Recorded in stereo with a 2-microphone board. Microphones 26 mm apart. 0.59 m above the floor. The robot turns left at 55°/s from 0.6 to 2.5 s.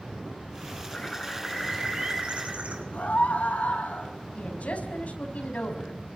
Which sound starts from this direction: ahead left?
A bird, at 0.9 s.